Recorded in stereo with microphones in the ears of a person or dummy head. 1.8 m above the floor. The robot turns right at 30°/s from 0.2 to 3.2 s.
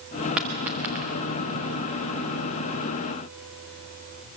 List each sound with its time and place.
0.4 s a dropped coin: 5° right (ahead or behind), 1.1 m; by 1.1 s 10° right (ahead or behind), 1.1 m